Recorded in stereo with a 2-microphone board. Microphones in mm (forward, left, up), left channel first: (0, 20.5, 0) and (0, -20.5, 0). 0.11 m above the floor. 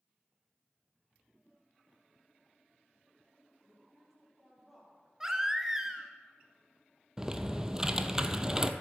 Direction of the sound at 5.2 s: 15° right (ahead or behind).